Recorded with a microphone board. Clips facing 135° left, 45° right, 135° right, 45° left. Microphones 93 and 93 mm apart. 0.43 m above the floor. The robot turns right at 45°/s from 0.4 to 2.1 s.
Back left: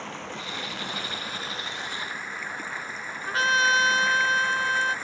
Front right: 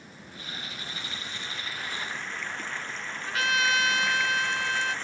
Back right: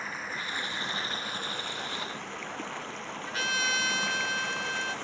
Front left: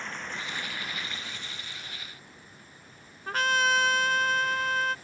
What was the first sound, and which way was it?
Running water, 140° left.